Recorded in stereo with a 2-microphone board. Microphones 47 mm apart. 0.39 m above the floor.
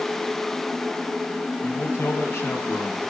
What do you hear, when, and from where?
1.6 s a man speaking: 60° left (ahead or behind), 3 m